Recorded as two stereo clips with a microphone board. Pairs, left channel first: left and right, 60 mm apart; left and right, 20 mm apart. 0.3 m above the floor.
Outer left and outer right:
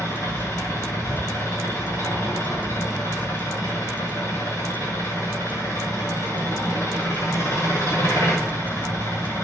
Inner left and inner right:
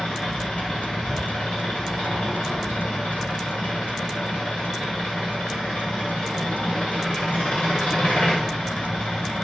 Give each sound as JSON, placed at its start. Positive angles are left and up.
{"t": 0.0, "sound": "an engine running", "side_deg": 75, "distance_m": 7.0}